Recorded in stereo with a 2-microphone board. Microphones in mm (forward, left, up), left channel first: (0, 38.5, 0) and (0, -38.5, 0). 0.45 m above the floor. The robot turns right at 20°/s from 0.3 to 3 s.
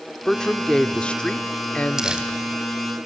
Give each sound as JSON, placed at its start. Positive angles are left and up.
{"t": 0.2, "sound": "a man speaking", "side_deg": 5, "distance_m": 0.8}
{"t": 2.0, "sound": "crumpling", "side_deg": -10, "distance_m": 2.5}